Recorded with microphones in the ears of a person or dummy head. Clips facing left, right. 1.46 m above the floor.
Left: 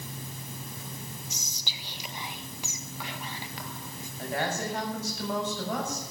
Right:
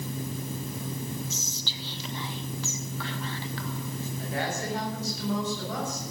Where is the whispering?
15° left (ahead or behind), 1.4 m.